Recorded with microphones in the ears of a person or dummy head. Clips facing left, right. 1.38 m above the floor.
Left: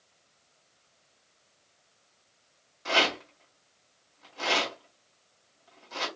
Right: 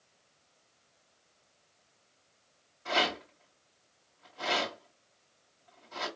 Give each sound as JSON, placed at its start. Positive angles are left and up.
{"t": 2.9, "sound": "a rattle", "side_deg": 70, "distance_m": 1.9}